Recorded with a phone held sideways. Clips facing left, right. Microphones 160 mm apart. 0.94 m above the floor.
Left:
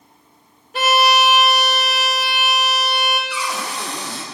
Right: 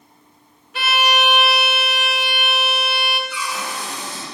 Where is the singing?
No singing in this recording.